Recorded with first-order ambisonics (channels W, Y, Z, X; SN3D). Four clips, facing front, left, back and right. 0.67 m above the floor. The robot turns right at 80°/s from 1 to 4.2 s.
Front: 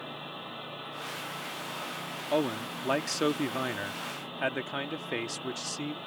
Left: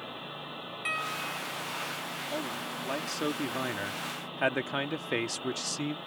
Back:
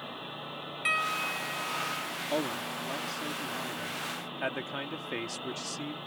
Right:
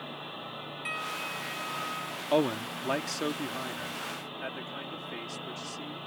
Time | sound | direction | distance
0.8 | a piano | 170° left | ?
2.3 | a man speaking | 75° right | ?